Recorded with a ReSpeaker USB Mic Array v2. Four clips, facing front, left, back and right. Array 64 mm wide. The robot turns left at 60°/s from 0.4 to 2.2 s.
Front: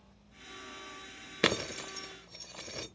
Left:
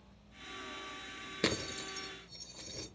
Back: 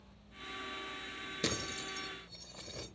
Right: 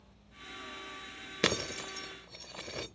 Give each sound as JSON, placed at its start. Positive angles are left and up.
{"t": 1.4, "sound": "breaking glass", "azimuth_deg": -25, "distance_m": 0.7}